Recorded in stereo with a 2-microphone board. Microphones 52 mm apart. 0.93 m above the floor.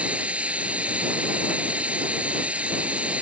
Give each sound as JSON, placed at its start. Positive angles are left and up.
{"t": 0.0, "sound": "running water", "side_deg": -25}